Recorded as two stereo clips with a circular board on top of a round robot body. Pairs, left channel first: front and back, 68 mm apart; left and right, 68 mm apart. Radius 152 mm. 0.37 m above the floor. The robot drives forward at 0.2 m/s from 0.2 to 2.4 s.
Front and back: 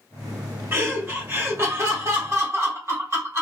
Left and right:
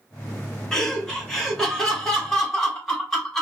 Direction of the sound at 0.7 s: 165° left.